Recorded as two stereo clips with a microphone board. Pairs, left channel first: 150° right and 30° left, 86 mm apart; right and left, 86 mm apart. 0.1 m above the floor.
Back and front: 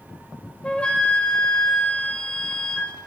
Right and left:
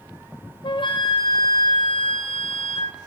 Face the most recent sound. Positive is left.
turn(degrees=-70)